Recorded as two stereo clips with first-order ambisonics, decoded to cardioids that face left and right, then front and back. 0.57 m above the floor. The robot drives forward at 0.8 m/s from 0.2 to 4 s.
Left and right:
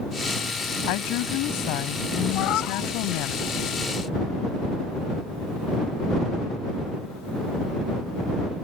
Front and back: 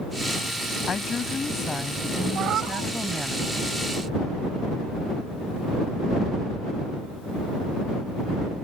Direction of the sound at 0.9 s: 70° left.